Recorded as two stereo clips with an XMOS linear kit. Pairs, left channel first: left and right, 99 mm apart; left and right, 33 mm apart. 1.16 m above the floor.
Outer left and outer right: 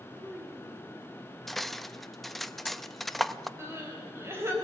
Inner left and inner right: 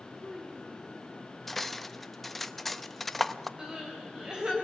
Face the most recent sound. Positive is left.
turn(degrees=-25)  # may be behind; listen again after turning